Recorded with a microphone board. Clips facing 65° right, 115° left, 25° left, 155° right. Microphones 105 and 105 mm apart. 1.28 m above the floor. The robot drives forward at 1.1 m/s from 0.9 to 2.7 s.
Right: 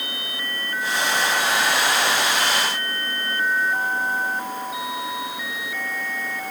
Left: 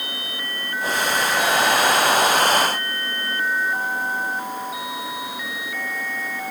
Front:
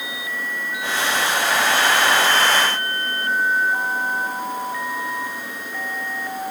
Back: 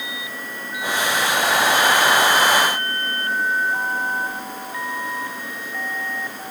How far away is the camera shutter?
No camera shutter in this recording.